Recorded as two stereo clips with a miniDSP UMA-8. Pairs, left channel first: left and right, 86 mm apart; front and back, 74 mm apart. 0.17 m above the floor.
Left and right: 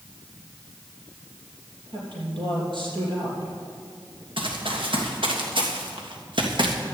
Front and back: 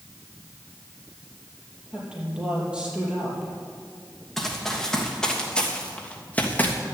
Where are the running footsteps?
85° right, 3 m; by 6.8 s 65° right, 2.5 m.